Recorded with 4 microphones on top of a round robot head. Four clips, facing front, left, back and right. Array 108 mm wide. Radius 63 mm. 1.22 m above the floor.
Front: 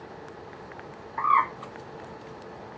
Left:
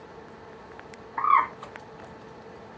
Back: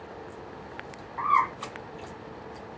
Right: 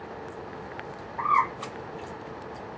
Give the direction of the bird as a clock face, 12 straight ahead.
10 o'clock.